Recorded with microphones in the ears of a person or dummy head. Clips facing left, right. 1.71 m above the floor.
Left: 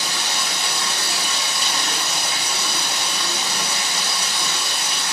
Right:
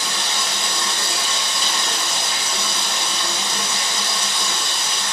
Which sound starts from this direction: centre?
Running water, at 0.0 s.